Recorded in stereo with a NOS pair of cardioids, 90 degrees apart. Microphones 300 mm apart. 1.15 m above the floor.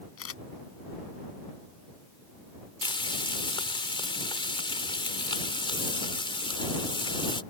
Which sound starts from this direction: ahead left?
A camera shutter, at 0.2 s.